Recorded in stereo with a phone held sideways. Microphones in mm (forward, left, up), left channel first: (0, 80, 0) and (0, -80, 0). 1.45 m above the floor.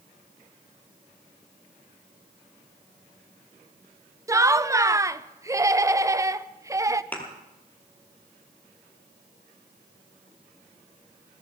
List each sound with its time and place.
4.3 s laughter: 20° right (ahead or behind), 0.5 m
7.1 s a thud: 10° left (ahead or behind), 2.5 m